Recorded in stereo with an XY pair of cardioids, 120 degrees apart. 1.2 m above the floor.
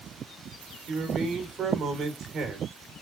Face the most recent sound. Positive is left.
turn(degrees=-50)